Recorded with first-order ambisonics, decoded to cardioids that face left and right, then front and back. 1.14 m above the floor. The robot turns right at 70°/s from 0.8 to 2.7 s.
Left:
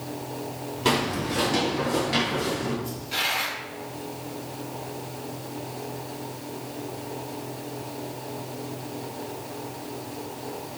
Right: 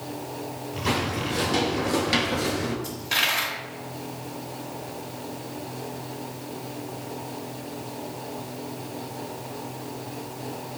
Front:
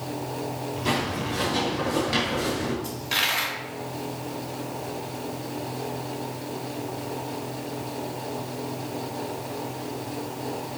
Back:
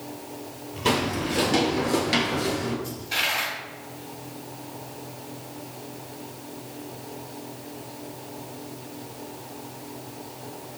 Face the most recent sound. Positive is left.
turn(degrees=-55)